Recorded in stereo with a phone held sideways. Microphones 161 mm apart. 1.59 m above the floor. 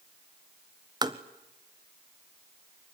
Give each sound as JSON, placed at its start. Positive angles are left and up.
{"t": 1.0, "sound": "tapping", "side_deg": -25, "distance_m": 1.3}